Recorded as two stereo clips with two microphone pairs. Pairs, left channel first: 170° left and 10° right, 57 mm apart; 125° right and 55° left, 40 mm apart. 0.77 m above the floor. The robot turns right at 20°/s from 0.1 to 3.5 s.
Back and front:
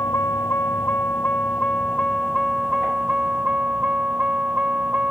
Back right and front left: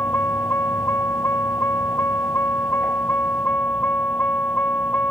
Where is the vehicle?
150° right; by 5.1 s 85° right.